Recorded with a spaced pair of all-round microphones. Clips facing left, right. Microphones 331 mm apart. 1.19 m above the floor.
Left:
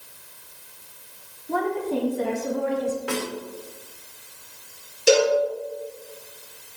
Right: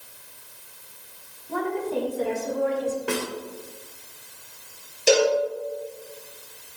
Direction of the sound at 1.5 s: 70° left (ahead or behind).